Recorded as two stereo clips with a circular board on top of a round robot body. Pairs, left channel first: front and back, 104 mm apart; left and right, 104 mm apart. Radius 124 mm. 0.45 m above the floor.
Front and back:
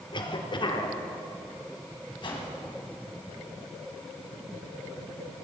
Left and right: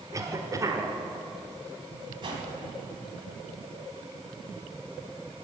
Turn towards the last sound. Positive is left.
turn(degrees=-45)